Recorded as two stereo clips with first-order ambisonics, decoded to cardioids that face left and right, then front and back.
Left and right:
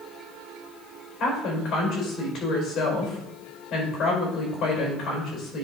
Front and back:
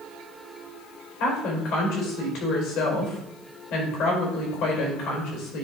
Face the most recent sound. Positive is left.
turn(degrees=30)